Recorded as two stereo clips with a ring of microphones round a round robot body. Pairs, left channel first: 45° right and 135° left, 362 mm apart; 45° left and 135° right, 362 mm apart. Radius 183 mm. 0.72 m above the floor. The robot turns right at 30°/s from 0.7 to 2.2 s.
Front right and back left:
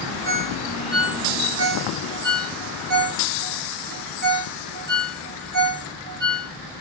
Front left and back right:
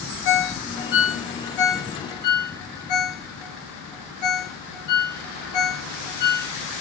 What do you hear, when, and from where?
0.2 s a ringtone: 30° left, 1.0 m; by 6.5 s 75° left, 1.0 m